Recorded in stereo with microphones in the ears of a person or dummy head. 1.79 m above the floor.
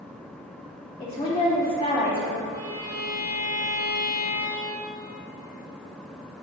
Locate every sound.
1.0 s a woman speaking: 25° left (ahead or behind), 1.0 m
2.5 s a violin: 45° right (ahead or behind), 1.9 m